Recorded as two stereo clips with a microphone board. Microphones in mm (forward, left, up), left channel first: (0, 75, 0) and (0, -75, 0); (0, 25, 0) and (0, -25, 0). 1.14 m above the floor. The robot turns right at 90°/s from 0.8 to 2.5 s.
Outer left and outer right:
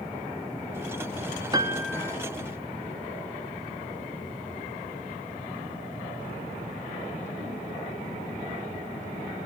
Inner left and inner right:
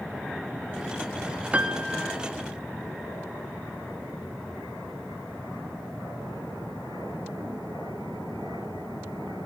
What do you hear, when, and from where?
1.5 s a piano: 30° right, 1.0 m; by 2.1 s 25° left, 1.0 m